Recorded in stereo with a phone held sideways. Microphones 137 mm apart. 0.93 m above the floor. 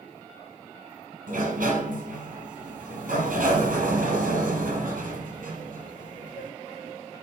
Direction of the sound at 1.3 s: 80° right.